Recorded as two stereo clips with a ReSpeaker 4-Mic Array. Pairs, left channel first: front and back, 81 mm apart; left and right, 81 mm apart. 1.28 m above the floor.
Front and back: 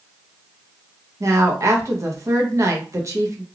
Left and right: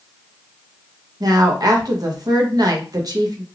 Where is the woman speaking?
130° right, 0.7 m.